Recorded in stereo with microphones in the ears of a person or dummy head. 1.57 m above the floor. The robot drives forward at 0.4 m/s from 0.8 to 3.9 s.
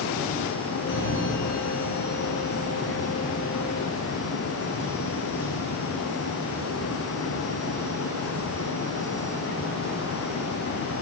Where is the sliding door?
70° left (ahead or behind), 5.5 m; by 5.7 s 60° left (ahead or behind), 6 m.